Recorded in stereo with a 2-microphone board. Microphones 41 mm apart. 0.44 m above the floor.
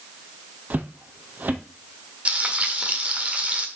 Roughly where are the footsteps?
Right.